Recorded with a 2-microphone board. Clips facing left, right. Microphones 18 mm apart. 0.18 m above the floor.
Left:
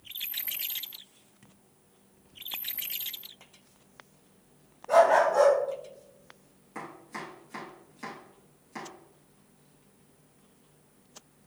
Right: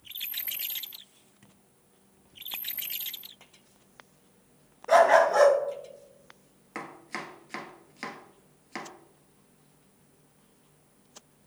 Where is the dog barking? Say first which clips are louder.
Right 2 dB; 70° right (ahead or behind), 1.0 m.